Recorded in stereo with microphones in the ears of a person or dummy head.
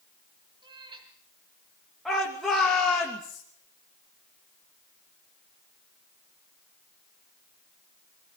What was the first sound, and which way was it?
A cat meowing, 25° right (ahead or behind).